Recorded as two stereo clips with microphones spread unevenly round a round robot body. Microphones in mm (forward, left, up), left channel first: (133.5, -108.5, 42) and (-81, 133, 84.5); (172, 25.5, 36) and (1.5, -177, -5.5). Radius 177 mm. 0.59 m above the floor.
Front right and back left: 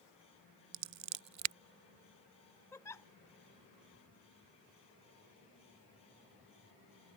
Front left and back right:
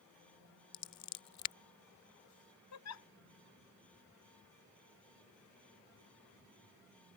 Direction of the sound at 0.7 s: 90° left.